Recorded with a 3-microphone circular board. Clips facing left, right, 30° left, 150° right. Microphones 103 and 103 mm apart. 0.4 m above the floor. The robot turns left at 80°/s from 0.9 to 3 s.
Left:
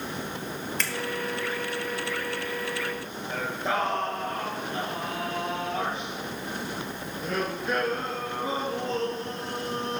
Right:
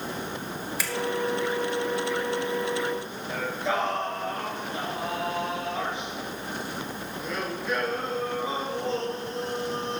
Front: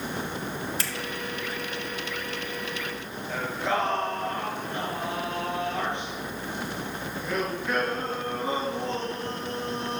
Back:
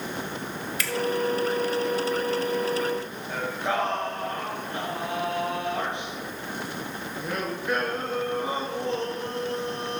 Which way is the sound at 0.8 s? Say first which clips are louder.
Right 2 dB, back 3 dB; 15° right.